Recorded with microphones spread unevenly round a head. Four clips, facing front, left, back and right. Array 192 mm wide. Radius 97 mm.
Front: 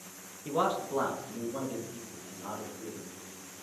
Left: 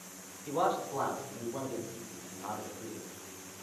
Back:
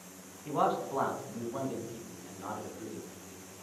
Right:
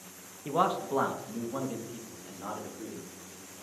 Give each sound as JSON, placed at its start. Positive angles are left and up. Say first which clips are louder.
{"t": 0.5, "sound": "a man speaking", "louder": "right 3 dB, even", "azimuth_deg": -65, "distance_m": 2.0}